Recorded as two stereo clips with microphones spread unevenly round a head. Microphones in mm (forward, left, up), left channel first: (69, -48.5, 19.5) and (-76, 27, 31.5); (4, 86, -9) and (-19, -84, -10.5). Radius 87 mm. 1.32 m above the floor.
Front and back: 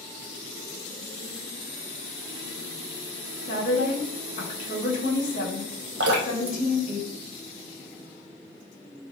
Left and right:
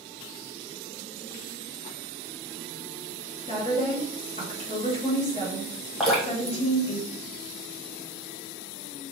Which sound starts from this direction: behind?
Dripping, at 6.0 s.